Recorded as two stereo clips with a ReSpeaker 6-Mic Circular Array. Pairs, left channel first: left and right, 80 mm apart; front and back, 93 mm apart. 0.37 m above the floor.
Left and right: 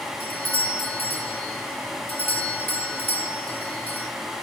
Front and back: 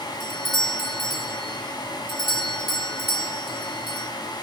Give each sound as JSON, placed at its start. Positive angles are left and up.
{"t": 0.2, "sound": "a doorbell", "azimuth_deg": 25, "distance_m": 4.0}